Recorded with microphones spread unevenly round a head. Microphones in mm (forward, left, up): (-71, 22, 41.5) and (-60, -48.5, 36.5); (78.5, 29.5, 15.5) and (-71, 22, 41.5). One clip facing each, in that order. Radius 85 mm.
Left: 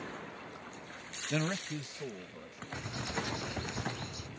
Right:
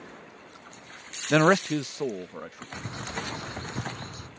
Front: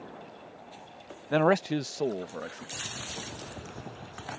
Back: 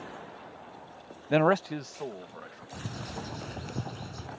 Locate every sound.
1.3 s a man speaking: 105° right; by 2.6 s 35° right
2.7 s a bird: 125° right